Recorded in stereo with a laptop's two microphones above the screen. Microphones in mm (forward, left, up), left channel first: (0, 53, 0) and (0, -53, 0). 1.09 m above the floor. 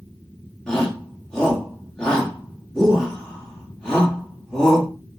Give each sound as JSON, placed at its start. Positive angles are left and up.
{"t": 0.7, "sound": "a shout", "side_deg": 10, "distance_m": 2.0}